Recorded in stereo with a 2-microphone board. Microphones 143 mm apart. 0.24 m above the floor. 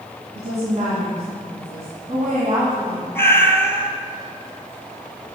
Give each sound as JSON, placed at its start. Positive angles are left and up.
{"t": 0.3, "sound": "a woman speaking", "side_deg": -55, "distance_m": 2.0}
{"t": 3.1, "sound": "a cat meowing", "side_deg": 15, "distance_m": 1.0}